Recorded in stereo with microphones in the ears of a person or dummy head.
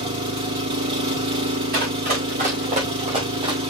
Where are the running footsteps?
55° right (ahead or behind), 5.5 m; by 3.6 s 25° right (ahead or behind), 4 m.